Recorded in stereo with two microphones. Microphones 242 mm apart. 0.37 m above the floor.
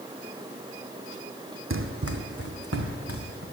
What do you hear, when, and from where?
1.7 s running footsteps: 60° right (ahead or behind), 0.9 m; by 3.4 s 80° right, 2 m